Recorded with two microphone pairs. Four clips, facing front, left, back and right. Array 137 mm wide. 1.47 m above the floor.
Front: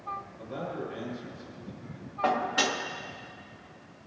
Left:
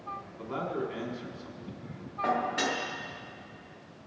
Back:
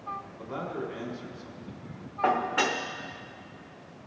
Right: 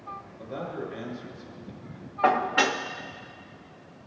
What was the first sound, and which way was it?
A man speaking, 120° left.